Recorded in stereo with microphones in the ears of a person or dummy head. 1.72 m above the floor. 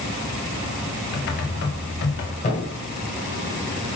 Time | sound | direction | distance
1.1 | typing on a keyboard | 55° left (ahead or behind) | 1.2 m
2.4 | a thud | 35° left (ahead or behind) | 1.8 m